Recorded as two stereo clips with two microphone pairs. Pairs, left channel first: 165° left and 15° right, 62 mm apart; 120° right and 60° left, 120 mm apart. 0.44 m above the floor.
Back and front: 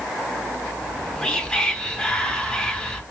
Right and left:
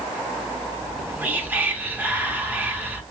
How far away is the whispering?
About 0.8 m.